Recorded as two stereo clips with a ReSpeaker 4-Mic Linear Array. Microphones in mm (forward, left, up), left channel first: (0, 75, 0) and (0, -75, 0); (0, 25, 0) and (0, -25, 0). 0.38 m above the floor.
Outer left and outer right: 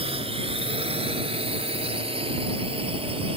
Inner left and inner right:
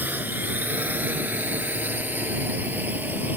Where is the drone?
35° right (ahead or behind).